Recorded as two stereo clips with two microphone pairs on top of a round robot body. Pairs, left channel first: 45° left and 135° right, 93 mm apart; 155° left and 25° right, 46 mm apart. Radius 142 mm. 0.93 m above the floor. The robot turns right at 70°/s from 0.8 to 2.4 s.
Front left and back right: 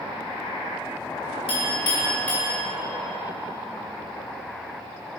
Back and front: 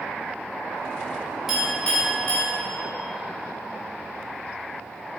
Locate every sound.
1.5 s a clink: 60° left, 1.8 m; by 2.5 s 125° left, 1.8 m